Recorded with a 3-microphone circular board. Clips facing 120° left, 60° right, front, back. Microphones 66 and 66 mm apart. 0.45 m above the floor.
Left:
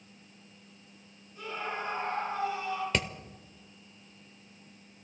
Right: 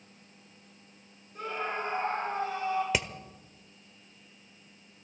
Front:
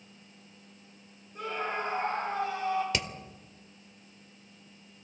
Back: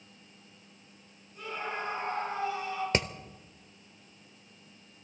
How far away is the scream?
About 10 m.